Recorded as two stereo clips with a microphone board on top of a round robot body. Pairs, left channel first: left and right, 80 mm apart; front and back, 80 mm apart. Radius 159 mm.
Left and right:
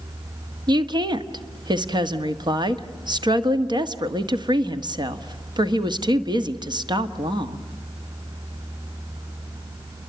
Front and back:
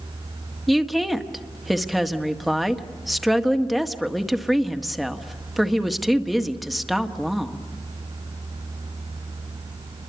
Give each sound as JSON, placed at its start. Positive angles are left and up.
{"t": 0.7, "sound": "a woman speaking", "azimuth_deg": -90, "distance_m": 1.7}